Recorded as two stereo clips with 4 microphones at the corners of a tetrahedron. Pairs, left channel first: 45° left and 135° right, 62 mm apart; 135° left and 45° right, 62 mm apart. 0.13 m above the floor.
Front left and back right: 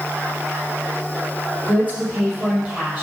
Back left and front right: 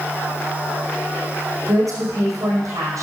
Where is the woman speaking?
70° right, 4.5 m.